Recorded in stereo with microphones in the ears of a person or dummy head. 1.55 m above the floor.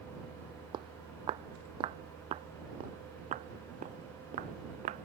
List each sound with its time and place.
0.7 s footsteps: 30° right (ahead or behind); by 5.1 s 45° right (ahead or behind)